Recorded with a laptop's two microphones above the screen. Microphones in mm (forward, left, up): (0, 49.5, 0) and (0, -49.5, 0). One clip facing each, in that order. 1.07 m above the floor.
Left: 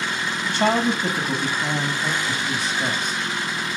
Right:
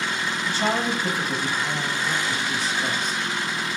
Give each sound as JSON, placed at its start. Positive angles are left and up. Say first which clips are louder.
{"t": 0.4, "sound": "a man speaking", "louder": "left 5 dB", "side_deg": 65, "distance_m": 1.8}